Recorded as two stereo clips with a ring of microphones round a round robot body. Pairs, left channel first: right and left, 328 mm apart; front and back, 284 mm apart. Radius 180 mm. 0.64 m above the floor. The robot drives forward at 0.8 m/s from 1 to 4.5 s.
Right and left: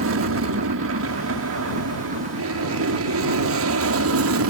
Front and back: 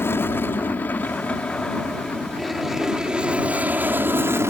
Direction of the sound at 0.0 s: 80° left.